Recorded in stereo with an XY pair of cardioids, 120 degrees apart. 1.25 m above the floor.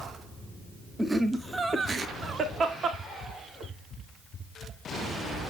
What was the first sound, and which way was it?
Laughter, 10° right.